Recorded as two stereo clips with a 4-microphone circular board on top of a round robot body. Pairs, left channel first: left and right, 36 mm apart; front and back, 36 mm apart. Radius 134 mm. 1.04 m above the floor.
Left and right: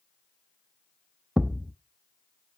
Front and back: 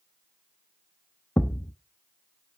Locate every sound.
1.4 s a thud: 30° right, 0.8 m